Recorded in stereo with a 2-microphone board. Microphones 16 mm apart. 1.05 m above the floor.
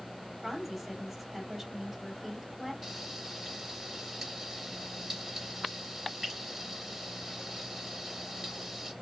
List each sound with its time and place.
0.4 s a woman speaking: 20° right (ahead or behind), 3.5 m
2.8 s frying: 25° right (ahead or behind), 4.5 m